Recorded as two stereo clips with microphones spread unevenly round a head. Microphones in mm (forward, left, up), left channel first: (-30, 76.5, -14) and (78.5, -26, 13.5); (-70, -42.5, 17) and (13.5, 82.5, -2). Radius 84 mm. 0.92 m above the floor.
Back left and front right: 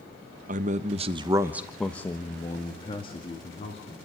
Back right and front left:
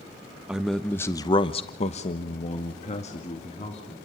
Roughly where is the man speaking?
Ahead.